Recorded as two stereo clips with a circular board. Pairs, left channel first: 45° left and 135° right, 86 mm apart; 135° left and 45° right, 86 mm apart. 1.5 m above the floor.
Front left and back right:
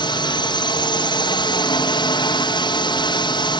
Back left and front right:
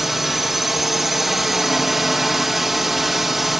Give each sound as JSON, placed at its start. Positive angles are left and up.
{"t": 0.0, "sound": "a drone", "azimuth_deg": 40}